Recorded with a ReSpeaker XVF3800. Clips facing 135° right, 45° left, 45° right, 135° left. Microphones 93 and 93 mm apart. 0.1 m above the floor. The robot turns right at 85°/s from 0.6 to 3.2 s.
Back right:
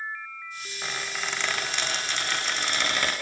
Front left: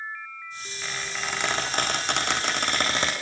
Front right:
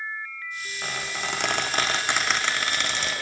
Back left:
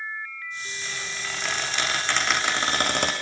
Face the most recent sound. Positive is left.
turn(degrees=125)